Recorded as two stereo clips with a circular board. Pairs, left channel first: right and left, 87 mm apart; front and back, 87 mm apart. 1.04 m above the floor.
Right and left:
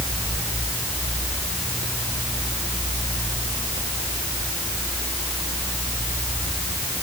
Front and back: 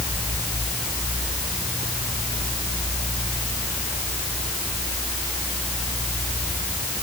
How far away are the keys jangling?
I don't hear keys jangling.